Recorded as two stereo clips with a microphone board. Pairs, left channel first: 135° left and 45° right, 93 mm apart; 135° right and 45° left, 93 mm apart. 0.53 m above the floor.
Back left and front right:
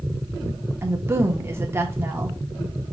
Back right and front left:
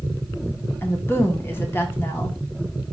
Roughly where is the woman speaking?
Right.